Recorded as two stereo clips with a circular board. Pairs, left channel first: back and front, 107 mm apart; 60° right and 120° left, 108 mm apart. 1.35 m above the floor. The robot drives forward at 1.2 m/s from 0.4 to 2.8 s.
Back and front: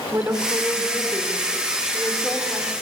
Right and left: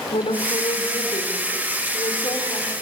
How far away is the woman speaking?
About 4.5 m.